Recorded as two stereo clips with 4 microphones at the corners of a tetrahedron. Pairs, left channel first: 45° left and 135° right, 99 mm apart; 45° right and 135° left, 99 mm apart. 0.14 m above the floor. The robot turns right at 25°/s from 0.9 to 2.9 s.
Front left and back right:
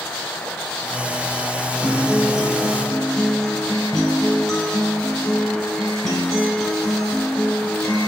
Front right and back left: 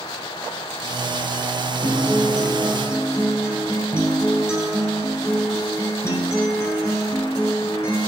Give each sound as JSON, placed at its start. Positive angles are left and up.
{"t": 1.8, "sound": "a guitar", "azimuth_deg": -65, "distance_m": 1.5}